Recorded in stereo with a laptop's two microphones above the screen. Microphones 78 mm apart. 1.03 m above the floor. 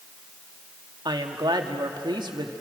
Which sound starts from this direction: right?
A woman speaking, at 1.1 s.